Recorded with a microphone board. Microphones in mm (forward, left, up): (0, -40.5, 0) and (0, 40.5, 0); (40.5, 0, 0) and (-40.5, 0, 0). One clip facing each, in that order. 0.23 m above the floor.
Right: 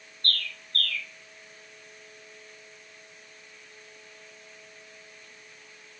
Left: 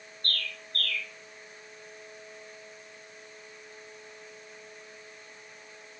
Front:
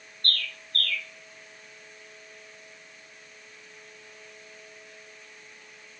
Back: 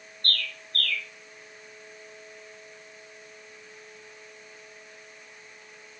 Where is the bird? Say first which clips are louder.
Right 2 dB, back 1 dB; 50° right, 2.5 m.